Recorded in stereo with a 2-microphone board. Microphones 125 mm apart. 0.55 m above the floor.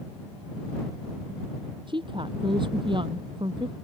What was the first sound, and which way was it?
A woman speaking, 40° right (ahead or behind).